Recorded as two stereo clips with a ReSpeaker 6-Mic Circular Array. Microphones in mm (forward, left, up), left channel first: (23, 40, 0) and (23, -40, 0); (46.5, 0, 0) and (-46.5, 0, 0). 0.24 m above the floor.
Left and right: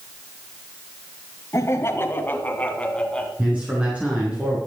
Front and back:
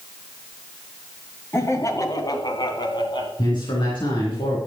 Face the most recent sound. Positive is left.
turn(degrees=-15)